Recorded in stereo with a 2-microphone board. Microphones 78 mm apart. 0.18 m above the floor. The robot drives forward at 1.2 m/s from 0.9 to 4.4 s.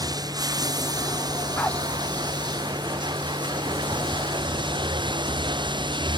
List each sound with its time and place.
0.0 s running water: 55° right (ahead or behind); by 6.2 s 75° right (ahead or behind)
1.6 s a dog barking: 20° left (ahead or behind)